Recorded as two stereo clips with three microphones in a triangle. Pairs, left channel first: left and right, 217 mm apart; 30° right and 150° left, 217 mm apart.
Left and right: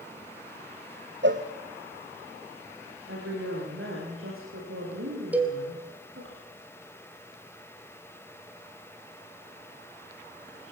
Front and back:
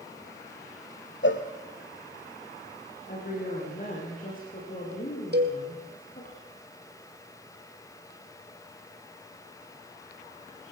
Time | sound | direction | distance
1.2 | a cowbell | 60° right | 2 m
3.1 | a woman speaking | 80° right | 10 m
5.3 | a cowbell | 175° right | 3.5 m